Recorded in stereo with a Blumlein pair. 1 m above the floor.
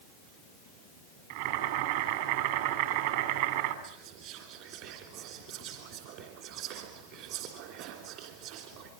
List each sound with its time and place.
1.3 s boiling: 55° right, 4 m
3.8 s whispering: 45° right, 3 m